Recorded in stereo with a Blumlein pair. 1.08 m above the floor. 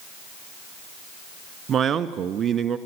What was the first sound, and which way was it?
A man speaking, 20° right.